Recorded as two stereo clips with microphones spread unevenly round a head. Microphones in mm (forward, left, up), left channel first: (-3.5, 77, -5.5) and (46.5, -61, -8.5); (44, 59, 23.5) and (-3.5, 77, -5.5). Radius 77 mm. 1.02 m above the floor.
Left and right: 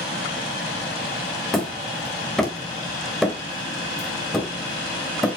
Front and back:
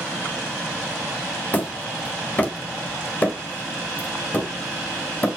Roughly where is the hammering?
Ahead left.